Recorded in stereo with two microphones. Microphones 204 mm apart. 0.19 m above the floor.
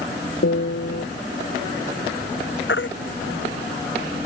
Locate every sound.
0.4 s a piano: 80° left
2.7 s a baby crying: 70° left (ahead or behind)